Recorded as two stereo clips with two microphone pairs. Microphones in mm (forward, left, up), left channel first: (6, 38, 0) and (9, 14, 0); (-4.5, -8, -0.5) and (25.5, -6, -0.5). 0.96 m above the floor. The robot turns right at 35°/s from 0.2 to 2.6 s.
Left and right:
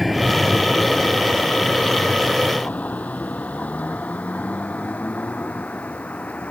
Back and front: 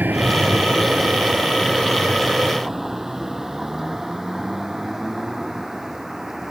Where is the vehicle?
Straight ahead; by 6.5 s 85° left.